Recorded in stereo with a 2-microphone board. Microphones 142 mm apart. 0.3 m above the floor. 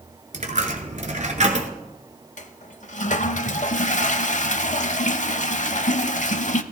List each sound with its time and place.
0.3 s a dropped coin: 55° right (ahead or behind), 1.3 m
2.4 s a toilet flushing: 60° left (ahead or behind), 0.6 m